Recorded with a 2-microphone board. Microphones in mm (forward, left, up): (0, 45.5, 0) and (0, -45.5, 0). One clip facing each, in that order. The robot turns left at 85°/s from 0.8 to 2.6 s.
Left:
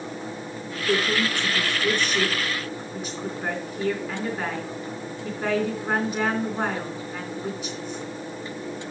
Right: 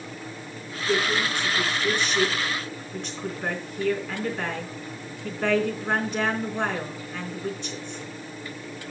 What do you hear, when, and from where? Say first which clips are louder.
0.9 s a woman speaking: left 1 dB; 155° left, 3.5 m; by 8.0 s 10° left, 3.5 m